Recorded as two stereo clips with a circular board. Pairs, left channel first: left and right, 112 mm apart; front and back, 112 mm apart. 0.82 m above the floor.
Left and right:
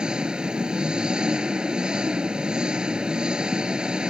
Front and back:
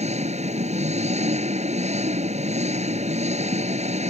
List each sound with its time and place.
0.0 s an engine running: 170° right